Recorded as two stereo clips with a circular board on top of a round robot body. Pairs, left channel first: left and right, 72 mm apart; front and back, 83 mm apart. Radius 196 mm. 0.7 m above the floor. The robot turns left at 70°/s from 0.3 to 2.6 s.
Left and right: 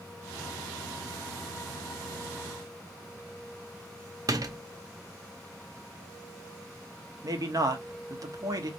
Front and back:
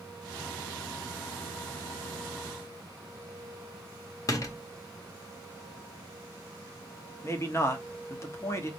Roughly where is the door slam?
Ahead right.